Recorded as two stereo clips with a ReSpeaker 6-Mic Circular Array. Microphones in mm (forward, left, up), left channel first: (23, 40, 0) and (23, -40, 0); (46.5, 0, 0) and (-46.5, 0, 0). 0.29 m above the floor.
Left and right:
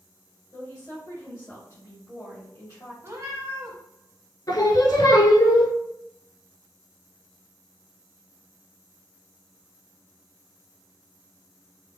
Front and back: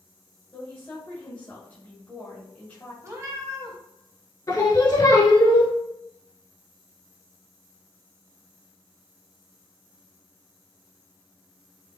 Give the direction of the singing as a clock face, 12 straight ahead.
10 o'clock.